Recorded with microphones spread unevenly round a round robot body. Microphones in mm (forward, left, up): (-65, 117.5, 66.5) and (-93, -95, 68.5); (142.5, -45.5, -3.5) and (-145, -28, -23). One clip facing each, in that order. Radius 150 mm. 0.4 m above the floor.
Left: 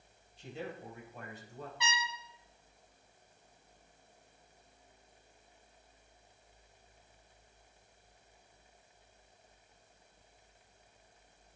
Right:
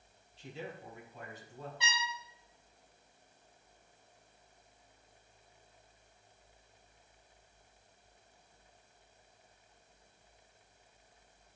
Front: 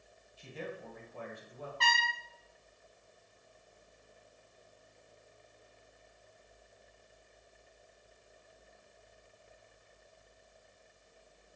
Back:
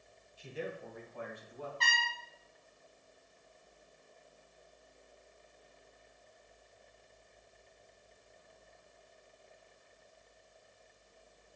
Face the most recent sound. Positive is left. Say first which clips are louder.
# left 5 dB, front 5 dB
turn(degrees=40)